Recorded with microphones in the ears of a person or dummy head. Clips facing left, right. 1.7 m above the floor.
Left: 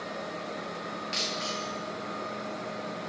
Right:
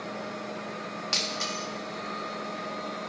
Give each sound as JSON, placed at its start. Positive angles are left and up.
{"t": 1.1, "sound": "breaking glass", "side_deg": -60, "distance_m": 1.8}